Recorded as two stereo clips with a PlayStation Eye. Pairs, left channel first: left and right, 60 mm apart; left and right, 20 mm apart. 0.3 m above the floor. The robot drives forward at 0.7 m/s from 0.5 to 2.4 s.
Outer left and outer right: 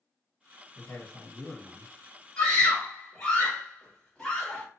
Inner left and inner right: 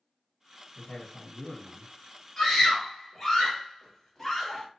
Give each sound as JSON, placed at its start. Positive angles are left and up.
{"t": 0.8, "sound": "a man speaking", "side_deg": 30, "distance_m": 1.5}
{"t": 2.4, "sound": "a scream", "side_deg": 10, "distance_m": 1.6}